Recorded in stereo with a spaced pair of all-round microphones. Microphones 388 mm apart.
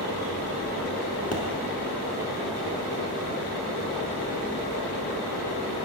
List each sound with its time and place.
1.3 s a pop: 35° left (ahead or behind), 1.5 m